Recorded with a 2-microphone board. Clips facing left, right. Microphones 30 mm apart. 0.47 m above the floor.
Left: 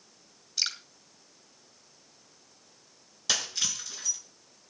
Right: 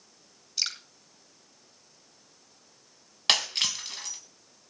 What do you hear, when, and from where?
0.6 s dripping: 5° right (ahead or behind), 3.5 m
3.3 s breaking glass: 65° right (ahead or behind), 2.5 m